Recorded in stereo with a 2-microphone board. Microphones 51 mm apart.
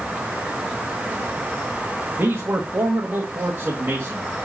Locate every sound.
2.2 s a man speaking: 55° right (ahead or behind), 1.8 m